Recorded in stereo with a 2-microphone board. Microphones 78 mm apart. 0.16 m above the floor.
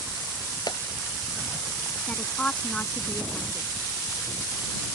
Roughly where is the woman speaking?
Centre.